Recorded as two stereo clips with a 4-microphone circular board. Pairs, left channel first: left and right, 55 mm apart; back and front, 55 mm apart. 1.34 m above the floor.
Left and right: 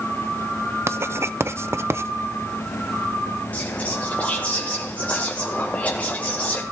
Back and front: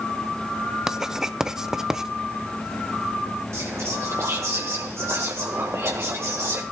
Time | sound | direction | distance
0.9 | writing | 80° right | 0.5 m
3.5 | whispering | 30° left | 1.0 m